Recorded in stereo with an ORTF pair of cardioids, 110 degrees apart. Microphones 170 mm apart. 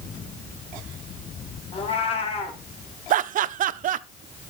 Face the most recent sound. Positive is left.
turn(degrees=-55)